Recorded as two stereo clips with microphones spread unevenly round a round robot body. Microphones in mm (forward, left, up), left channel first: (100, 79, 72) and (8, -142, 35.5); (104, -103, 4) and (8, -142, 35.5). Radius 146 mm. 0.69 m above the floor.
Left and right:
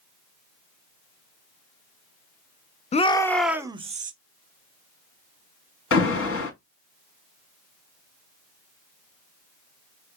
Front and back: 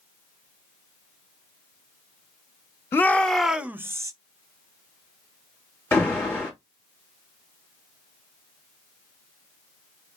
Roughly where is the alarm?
Left.